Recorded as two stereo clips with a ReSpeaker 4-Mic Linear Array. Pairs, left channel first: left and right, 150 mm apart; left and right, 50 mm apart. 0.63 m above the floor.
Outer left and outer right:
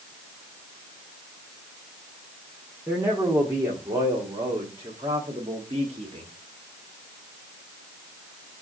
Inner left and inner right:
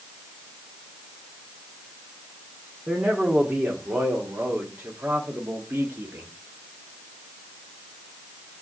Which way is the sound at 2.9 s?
15° right (ahead or behind).